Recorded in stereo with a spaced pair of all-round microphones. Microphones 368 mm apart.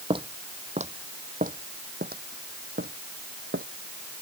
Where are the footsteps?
15° right (ahead or behind); by 3.7 s 30° right (ahead or behind).